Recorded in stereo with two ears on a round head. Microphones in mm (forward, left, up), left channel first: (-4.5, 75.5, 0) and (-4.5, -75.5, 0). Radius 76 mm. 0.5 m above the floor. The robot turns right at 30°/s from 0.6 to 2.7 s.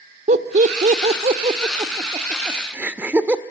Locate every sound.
0.3 s laughter: 45° right (ahead or behind), 1.6 m; by 3.4 s 10° right (ahead or behind), 1.6 m